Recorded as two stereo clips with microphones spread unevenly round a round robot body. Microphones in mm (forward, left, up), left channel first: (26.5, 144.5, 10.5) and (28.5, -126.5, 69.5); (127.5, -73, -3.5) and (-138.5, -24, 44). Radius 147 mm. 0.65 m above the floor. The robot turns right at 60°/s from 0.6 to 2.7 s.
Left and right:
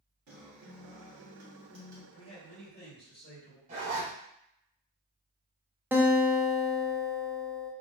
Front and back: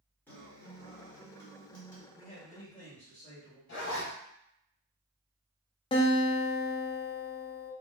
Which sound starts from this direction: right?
A guitar, at 0.3 s.